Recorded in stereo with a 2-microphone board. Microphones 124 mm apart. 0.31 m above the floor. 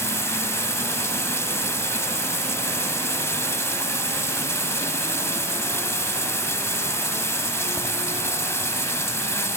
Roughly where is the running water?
Left.